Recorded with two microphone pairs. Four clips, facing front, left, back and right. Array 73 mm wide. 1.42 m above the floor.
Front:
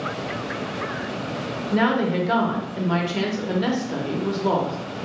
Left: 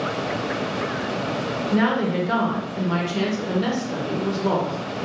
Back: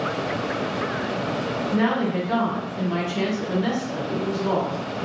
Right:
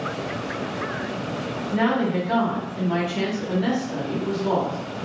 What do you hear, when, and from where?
1.7 s a woman speaking: 25° left, 0.8 m